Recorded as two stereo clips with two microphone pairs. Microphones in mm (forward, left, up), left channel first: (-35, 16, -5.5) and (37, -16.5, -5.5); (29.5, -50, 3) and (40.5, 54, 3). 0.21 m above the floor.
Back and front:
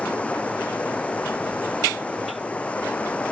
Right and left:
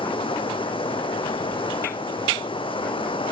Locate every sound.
0.0 s running water: 130° right